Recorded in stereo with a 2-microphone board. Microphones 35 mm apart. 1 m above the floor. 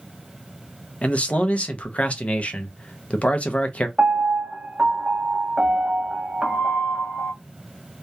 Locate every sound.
1.0 s a man speaking: 40° left (ahead or behind), 0.5 m
4.0 s a piano: 30° right (ahead or behind), 0.7 m